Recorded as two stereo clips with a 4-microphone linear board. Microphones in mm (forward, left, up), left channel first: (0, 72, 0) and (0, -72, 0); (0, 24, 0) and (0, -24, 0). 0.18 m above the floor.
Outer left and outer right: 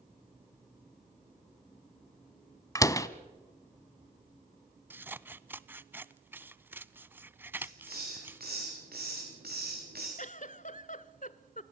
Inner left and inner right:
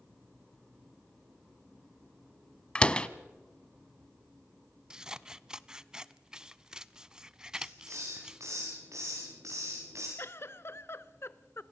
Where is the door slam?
20° left (ahead or behind), 0.7 m.